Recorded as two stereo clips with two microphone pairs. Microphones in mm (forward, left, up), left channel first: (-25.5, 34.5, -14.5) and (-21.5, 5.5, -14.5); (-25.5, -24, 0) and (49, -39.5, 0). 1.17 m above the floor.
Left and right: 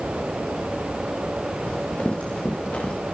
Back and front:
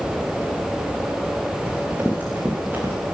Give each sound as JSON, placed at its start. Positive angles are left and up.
{"t": 1.7, "sound": "running footsteps", "azimuth_deg": 55, "distance_m": 8.0}